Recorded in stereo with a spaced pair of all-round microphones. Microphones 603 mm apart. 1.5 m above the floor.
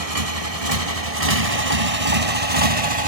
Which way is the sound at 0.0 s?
75° right (ahead or behind).